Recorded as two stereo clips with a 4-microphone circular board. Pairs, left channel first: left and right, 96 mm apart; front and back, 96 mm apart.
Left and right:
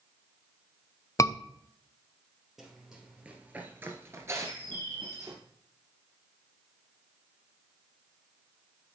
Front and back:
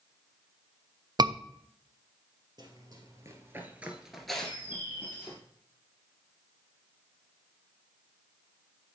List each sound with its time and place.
1.2 s a scream: 145° left, 0.6 m
2.6 s running footsteps: straight behind, 2 m; by 5.4 s 50° right, 2 m
4.4 s a bird: 110° right, 4.5 m